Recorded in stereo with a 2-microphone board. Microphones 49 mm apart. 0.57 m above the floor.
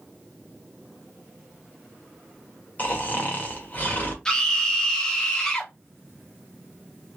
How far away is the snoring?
About 1.3 m.